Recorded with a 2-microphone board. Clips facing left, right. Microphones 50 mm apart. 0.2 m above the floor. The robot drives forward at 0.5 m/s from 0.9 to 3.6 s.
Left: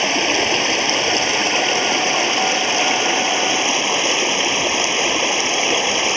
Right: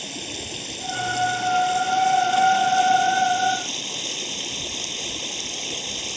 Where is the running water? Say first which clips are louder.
Left 17 dB; 75° left (ahead or behind); by 6.2 s 65° left (ahead or behind).